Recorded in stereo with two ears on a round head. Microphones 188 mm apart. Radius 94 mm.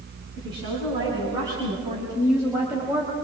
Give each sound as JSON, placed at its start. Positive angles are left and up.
{"t": 0.4, "sound": "a woman speaking", "side_deg": -25, "distance_m": 5.5}